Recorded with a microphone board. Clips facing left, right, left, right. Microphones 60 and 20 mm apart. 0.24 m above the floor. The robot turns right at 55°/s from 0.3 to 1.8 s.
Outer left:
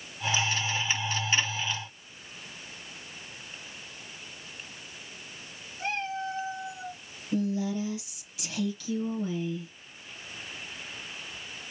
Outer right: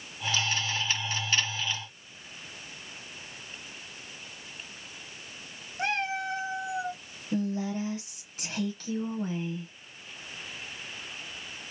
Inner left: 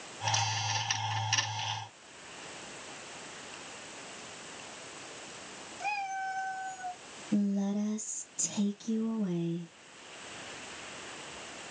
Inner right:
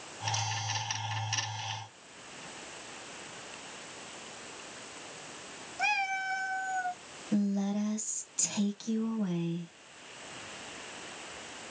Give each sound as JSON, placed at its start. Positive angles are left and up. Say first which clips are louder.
{"t": 5.8, "sound": "a cat meowing", "louder": "outer right 2 dB, inner right 4 dB", "side_deg": -75, "distance_m": 0.9}
{"t": 7.3, "sound": "a woman speaking", "louder": "outer left 1 dB, even", "side_deg": -40, "distance_m": 1.3}